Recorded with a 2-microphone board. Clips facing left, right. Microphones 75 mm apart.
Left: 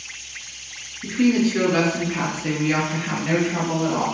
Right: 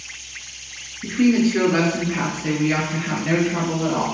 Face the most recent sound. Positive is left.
turn(degrees=5)  # may be behind; listen again after turning